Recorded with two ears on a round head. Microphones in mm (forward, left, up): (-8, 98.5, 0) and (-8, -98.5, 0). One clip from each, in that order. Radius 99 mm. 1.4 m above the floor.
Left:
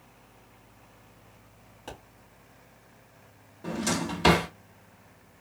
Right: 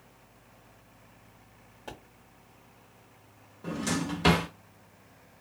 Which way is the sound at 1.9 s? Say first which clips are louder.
Left 1 dB; 5° left (ahead or behind).